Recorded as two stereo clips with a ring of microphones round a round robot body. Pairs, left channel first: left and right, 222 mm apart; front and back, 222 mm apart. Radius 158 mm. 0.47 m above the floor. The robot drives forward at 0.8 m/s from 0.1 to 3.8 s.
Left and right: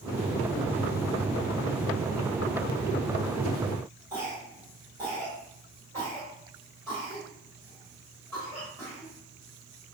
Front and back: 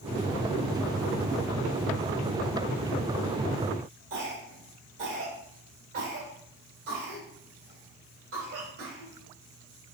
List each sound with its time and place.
4.1 s a cough: 175° left, 2 m